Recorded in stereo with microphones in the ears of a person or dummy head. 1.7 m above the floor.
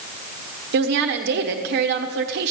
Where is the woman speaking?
55° right (ahead or behind), 1.0 m.